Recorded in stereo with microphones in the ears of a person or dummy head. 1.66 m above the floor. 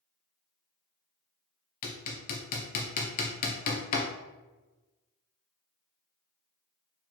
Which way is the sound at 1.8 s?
45° left (ahead or behind).